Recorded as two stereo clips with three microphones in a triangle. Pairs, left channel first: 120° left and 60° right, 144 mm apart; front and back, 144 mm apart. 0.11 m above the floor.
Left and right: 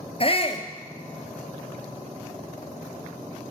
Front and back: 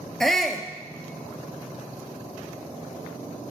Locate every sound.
0.2 s a shout: 85° left, 1.7 m